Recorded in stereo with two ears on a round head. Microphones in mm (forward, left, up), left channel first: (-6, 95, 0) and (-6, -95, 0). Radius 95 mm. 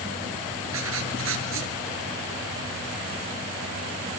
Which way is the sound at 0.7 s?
65° right (ahead or behind).